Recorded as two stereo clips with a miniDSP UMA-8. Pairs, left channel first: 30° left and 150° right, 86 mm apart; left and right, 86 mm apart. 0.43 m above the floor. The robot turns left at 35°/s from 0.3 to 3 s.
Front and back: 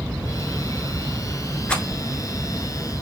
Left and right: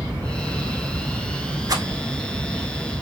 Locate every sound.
1.7 s a rattle: 45° right, 0.9 m; by 1.8 s 50° right, 0.9 m